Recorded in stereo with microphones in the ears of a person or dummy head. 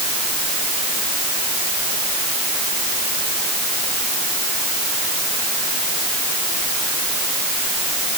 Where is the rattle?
I don't hear a rattle.